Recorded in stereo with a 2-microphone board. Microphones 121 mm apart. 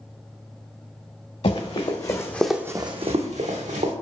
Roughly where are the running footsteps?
Left.